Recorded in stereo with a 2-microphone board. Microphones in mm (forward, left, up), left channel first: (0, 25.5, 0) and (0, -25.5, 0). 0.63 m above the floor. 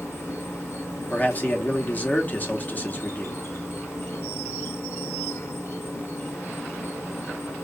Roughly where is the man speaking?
Left.